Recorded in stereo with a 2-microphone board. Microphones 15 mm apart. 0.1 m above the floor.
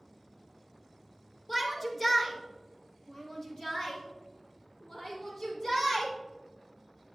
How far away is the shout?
About 1.6 m.